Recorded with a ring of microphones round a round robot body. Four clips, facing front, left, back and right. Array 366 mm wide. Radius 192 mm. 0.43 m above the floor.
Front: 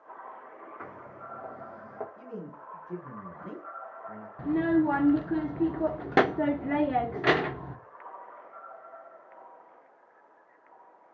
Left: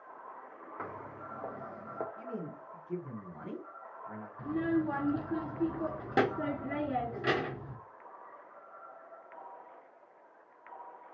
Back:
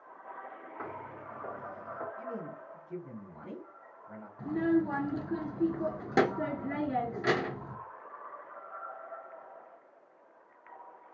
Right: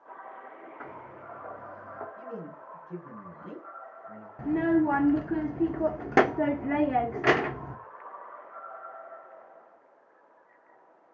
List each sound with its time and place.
0.8 s footsteps: 95° left, 2 m; by 2.1 s 65° left, 1.1 m
2.2 s a man speaking: 30° left, 2 m
4.4 s a child speaking: 60° right, 0.6 m